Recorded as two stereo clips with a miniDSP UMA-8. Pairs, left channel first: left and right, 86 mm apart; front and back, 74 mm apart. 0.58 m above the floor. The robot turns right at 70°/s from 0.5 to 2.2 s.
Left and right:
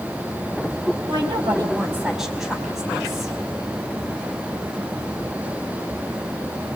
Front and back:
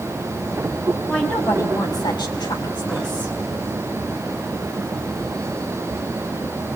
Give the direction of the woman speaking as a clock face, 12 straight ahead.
3 o'clock.